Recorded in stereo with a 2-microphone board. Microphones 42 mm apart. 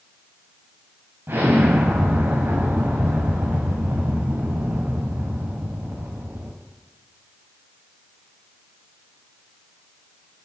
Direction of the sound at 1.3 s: 75° right (ahead or behind).